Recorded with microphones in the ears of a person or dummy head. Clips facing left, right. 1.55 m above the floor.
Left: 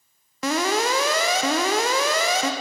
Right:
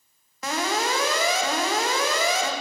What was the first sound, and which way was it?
An alarm, 55° left (ahead or behind).